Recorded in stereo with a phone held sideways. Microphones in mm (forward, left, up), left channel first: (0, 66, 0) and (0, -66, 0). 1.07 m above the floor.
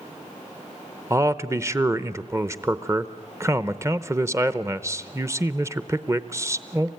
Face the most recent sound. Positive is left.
turn(degrees=-20)  # may be behind; listen again after turning